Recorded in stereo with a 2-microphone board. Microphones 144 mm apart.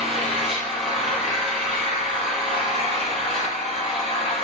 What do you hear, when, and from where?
0.0 s an engine running: centre (ahead or behind), 5.5 m